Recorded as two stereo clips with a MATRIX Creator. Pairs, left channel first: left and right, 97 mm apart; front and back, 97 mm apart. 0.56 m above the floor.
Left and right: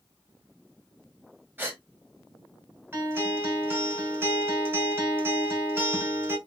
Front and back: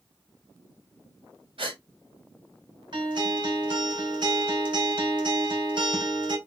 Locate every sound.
1.6 s a gasp: 160° right, 1.9 m
2.9 s a guitar: 155° right, 3 m